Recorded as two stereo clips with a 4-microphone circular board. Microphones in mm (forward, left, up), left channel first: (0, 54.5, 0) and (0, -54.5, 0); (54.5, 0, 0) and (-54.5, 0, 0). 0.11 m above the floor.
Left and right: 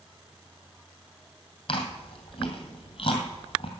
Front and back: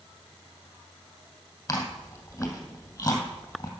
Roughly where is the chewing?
Ahead left.